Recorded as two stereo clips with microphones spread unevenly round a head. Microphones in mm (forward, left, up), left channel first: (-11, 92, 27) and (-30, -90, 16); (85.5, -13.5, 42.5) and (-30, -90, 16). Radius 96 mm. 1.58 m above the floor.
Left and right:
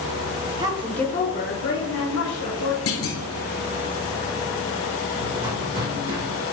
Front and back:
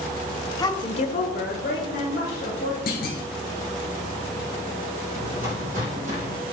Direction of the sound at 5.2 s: 130° right.